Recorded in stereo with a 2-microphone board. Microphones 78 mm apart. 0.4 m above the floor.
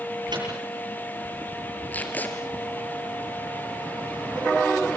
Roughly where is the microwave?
Right.